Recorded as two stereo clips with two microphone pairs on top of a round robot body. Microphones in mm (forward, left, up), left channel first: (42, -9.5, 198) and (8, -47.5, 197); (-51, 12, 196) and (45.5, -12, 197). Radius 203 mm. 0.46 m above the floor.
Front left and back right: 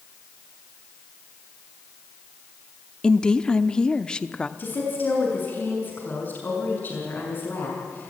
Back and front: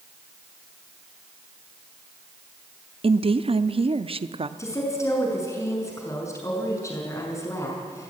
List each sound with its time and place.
3.0 s a woman speaking: 25° right, 1.2 m
4.6 s a woman speaking: 105° left, 6.5 m